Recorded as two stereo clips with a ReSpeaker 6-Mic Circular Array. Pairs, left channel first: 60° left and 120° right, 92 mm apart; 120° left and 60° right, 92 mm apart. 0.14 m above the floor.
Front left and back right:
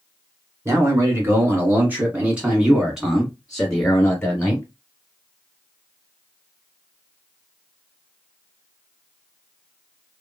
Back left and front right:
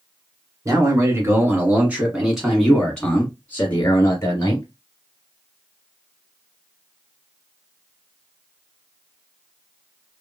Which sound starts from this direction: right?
A man speaking, at 0.7 s.